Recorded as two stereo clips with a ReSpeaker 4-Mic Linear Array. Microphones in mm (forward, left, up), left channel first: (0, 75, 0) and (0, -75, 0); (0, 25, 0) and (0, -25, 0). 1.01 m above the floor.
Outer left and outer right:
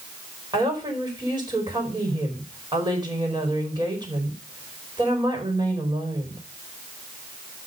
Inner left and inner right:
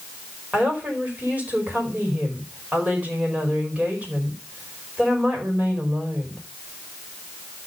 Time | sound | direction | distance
0.5 | a woman speaking | 30° right (ahead or behind) | 4.5 m